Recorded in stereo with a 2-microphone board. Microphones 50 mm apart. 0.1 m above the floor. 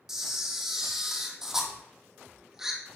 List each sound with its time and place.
0.1 s a camera shutter: 10° right (ahead or behind), 1.9 m